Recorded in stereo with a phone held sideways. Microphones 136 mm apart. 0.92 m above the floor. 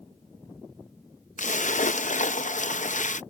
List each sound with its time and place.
1.4 s a splash: 65° left (ahead or behind)